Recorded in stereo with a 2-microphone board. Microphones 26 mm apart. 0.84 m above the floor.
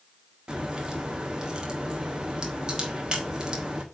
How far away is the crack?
About 1.5 m.